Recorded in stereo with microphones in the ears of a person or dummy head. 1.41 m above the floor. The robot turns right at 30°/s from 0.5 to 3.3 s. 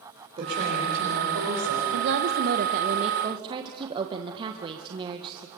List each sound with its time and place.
0.4 s a woman speaking: 150° right, 5 m; by 1.8 s 110° right, 5 m
1.9 s a woman speaking: 65° right, 1.1 m; by 5.5 s 25° right, 1.1 m